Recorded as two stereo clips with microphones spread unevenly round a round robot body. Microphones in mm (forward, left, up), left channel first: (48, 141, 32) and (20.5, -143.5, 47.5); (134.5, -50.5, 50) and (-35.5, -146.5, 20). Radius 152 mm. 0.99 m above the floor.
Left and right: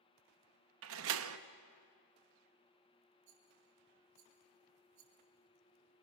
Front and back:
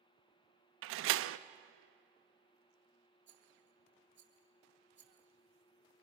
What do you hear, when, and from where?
0.8 s a door slam: 145° right, 0.7 m
3.3 s a rattle: 125° right, 4 m